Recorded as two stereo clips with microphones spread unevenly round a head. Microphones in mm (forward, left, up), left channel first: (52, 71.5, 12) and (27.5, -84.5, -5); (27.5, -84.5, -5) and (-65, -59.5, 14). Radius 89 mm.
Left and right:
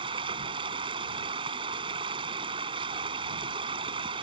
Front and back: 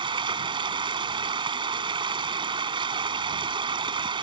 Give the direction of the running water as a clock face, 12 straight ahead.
6 o'clock.